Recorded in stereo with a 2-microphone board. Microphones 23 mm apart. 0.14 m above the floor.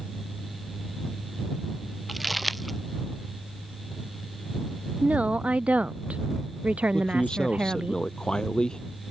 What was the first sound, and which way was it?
Crumpling, centre (ahead or behind).